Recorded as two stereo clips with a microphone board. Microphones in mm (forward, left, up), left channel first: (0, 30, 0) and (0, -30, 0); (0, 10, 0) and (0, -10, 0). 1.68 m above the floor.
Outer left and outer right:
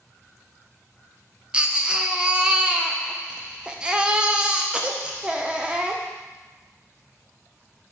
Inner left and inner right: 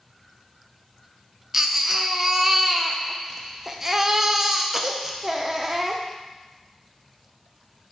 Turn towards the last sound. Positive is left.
turn(degrees=-15)  # may be behind; listen again after turning